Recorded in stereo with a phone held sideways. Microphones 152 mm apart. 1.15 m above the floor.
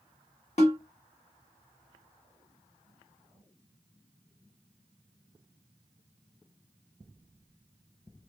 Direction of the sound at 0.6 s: 45° left (ahead or behind).